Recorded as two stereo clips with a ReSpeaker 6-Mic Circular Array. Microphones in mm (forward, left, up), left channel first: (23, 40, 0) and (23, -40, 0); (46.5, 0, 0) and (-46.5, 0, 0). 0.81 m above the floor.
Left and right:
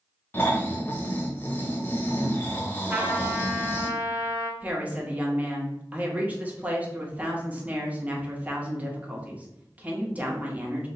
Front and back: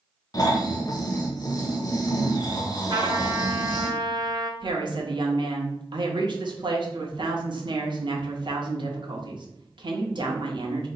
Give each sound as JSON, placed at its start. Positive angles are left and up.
{"t": 0.3, "sound": "snoring", "azimuth_deg": 35, "distance_m": 0.8}
{"t": 2.9, "sound": "a trumpet", "azimuth_deg": -155, "distance_m": 0.9}
{"t": 4.6, "sound": "a woman speaking", "azimuth_deg": -160, "distance_m": 1.0}